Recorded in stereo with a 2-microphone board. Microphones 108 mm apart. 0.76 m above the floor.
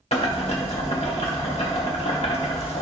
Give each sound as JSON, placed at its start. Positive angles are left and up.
{"t": 0.1, "sound": "boiling", "side_deg": 70, "distance_m": 1.6}